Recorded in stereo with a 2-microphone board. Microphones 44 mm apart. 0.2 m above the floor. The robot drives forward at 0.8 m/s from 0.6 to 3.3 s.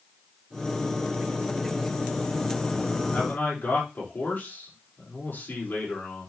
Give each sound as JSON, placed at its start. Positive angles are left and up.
{"t": 3.1, "sound": "a man speaking", "side_deg": 45, "distance_m": 5.0}